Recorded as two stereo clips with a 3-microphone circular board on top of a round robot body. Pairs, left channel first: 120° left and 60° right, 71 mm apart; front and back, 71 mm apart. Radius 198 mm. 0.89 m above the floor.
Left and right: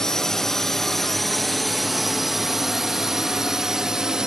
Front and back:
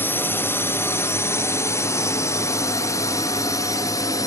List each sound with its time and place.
0.0 s a drone: 40° left; by 4.3 s 20° left